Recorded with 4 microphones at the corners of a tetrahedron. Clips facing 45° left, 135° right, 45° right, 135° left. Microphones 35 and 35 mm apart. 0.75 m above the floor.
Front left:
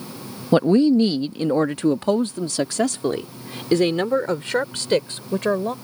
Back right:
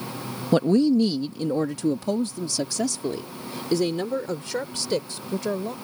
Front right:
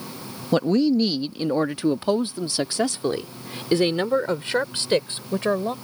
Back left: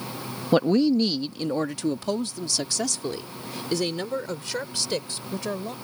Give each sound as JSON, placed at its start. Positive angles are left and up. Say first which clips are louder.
{"t": 0.5, "sound": "a woman speaking", "louder": "front left 4 dB, even", "azimuth_deg": 65}